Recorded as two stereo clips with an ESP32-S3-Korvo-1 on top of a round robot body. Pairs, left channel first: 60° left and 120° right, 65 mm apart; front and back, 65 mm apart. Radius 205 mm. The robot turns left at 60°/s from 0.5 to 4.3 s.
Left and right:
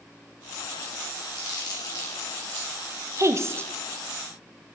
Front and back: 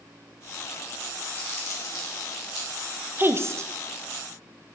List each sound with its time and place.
1.4 s crumpling: 65° left, 3 m; by 2.8 s 25° right, 3 m
3.2 s a woman speaking: 135° right, 1.1 m; by 3.7 s 165° right, 1.1 m